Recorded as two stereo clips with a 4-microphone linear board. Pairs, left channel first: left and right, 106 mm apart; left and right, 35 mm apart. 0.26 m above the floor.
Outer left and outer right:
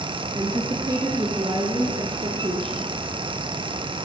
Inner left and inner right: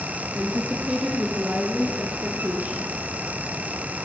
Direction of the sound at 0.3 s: 25° right (ahead or behind).